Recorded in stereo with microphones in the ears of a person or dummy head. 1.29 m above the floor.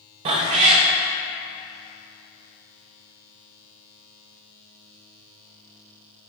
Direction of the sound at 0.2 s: 30° right (ahead or behind).